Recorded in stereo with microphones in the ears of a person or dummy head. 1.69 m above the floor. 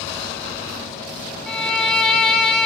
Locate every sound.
1.5 s a violin: 5° left (ahead or behind), 0.8 m